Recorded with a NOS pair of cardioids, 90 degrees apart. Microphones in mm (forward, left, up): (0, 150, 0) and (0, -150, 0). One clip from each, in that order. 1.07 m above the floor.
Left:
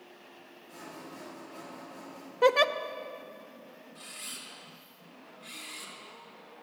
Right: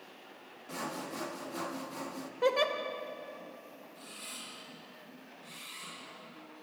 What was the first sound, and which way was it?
Sawing, 65° right.